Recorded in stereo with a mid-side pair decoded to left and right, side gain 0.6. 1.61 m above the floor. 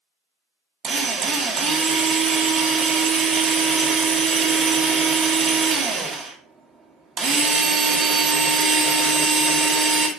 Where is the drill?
45° right, 1.0 m.